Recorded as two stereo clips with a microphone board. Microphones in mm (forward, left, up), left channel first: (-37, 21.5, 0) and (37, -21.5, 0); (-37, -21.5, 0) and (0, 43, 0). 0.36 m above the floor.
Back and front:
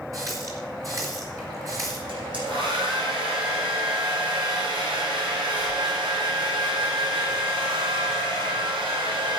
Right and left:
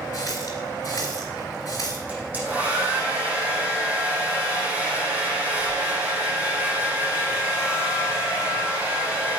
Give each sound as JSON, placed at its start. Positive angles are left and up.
{"t": 0.1, "sound": "a running tap", "azimuth_deg": -80, "distance_m": 4.0}
{"t": 2.1, "sound": "a hair dryer", "azimuth_deg": -10, "distance_m": 5.0}